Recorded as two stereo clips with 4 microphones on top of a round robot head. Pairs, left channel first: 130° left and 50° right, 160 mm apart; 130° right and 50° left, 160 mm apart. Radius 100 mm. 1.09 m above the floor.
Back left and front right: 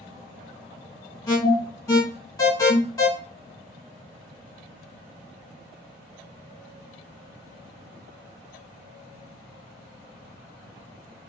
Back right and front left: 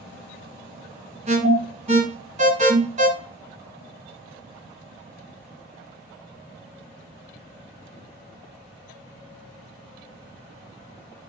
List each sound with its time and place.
1.3 s an alarm: 70° left, 1.8 m